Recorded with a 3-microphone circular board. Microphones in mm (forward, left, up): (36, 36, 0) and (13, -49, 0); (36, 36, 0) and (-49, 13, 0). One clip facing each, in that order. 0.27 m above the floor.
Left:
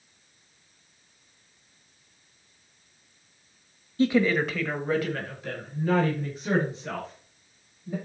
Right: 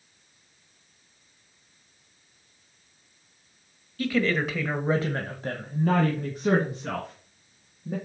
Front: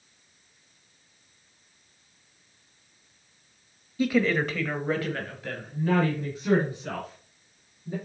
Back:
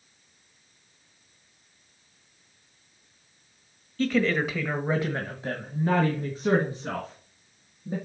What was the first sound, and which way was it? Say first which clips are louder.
A woman speaking: left 3 dB, front 1 dB; 80° left.